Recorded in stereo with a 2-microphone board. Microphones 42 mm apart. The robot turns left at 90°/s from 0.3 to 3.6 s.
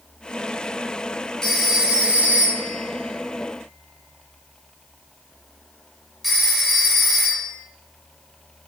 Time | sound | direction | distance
1.4 | a phone ringing | 15° left (ahead or behind) | 0.7 m